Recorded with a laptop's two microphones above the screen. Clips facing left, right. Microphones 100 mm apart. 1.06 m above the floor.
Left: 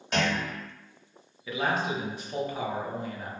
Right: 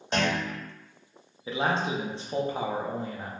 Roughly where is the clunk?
Right.